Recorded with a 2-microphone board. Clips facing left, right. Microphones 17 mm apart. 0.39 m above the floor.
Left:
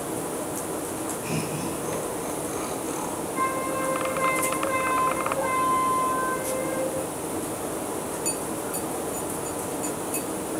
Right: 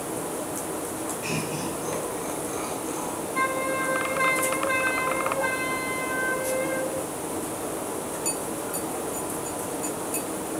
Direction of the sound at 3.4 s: 60° right (ahead or behind).